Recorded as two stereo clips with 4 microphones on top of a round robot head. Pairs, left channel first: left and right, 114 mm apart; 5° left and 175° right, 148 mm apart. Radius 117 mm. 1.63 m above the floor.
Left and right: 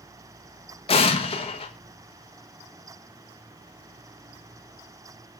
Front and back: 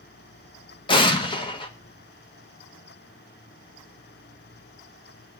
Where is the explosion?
60° left, 1.4 m.